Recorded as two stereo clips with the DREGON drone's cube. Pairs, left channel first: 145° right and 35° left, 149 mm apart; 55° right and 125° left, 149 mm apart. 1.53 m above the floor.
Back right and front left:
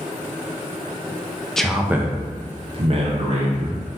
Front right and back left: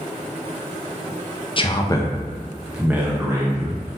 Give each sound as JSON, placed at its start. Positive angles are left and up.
{"t": 1.6, "sound": "a man speaking", "azimuth_deg": -60, "distance_m": 0.5}